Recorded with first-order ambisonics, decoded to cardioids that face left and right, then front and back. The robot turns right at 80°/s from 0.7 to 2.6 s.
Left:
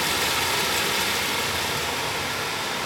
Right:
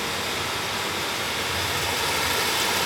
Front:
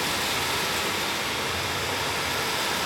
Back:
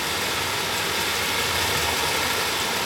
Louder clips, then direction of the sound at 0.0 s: Left 4 dB, back 1 dB; 90° left.